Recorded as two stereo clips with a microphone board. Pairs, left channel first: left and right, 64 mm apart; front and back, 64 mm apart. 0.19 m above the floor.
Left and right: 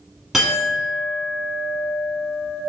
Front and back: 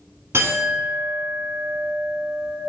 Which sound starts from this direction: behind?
A clink, at 0.3 s.